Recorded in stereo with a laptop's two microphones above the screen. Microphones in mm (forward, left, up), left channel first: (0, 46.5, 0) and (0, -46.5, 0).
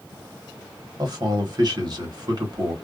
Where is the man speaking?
45° right (ahead or behind), 1.2 m.